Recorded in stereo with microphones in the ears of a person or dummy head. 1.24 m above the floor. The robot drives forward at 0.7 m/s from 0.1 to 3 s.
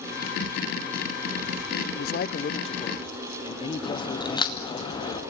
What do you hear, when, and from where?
1.9 s a man speaking: 35° left (ahead or behind), 0.6 m; by 4.8 s 25° left (ahead or behind), 0.9 m
3.8 s a crack: 25° left (ahead or behind), 2 m